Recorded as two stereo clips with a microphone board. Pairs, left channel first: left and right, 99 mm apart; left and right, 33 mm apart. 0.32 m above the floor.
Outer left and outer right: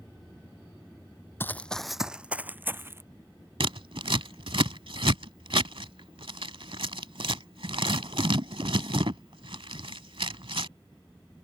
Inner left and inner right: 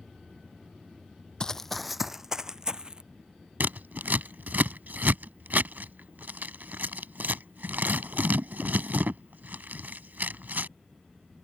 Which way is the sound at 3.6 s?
70° right (ahead or behind).